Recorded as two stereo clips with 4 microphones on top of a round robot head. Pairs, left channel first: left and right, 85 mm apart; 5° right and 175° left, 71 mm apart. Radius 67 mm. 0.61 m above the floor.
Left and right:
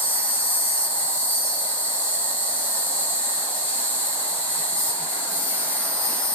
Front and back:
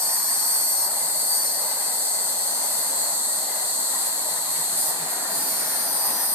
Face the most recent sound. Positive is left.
turn(degrees=145)